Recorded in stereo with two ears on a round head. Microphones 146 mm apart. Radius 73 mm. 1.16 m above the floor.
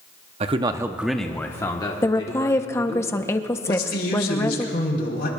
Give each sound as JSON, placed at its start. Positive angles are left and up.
{"t": 0.4, "sound": "a man speaking", "side_deg": -40, "distance_m": 0.8}
{"t": 2.0, "sound": "a woman speaking", "side_deg": 15, "distance_m": 0.8}
{"t": 3.7, "sound": "a man speaking", "side_deg": 70, "distance_m": 4.0}